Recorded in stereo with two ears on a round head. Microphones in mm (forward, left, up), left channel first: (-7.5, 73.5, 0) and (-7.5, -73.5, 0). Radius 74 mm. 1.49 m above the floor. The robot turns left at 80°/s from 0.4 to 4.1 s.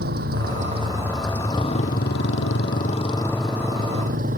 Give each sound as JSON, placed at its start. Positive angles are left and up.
{"t": 0.0, "sound": "a motorcycle", "azimuth_deg": -115}